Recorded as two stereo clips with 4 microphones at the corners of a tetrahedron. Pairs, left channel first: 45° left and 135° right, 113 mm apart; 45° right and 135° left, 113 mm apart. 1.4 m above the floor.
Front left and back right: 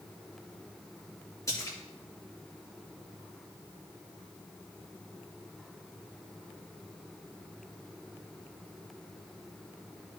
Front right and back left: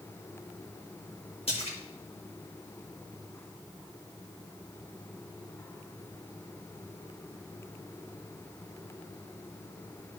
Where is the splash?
15° right, 1.7 m.